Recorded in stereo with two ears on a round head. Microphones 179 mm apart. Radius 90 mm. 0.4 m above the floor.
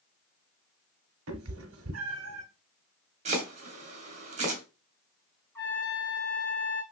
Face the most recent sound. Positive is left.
turn(degrees=10)  # may be behind; listen again after turning